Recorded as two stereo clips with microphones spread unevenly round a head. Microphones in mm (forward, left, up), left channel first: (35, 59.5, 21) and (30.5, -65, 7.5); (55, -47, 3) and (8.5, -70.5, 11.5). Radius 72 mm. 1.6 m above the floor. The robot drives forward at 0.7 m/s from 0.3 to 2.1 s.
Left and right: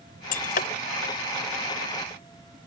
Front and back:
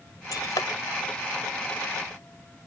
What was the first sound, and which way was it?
Breaking glass, 80° left.